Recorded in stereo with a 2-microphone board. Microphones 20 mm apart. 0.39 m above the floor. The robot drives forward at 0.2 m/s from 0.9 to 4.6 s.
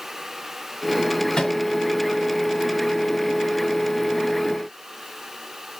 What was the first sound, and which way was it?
A microwave, 40° left (ahead or behind).